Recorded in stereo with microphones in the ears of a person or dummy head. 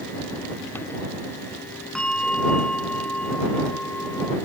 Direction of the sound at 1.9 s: 5° left (ahead or behind).